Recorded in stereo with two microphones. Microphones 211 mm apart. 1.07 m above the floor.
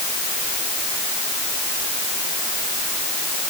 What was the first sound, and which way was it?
Only background noise.